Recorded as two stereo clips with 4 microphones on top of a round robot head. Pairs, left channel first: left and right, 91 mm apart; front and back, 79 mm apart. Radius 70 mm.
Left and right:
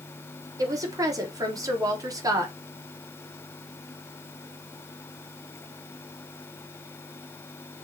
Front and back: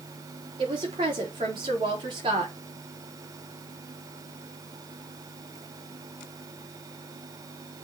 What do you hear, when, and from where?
0.6 s a woman speaking: 140° right, 4 m